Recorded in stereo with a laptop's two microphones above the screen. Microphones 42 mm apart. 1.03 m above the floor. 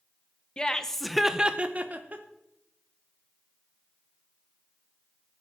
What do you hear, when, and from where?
0.6 s laughter: 25° left (ahead or behind), 0.9 m; by 2.2 s 45° right (ahead or behind), 1.1 m